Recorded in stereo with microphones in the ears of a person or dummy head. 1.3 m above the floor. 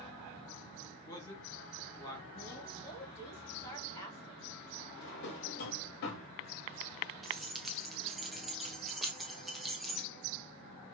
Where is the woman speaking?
20° left (ahead or behind), 2.5 m.